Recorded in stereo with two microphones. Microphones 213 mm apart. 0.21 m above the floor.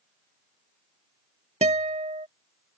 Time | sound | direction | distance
1.6 | a guitar | 30° right (ahead or behind) | ?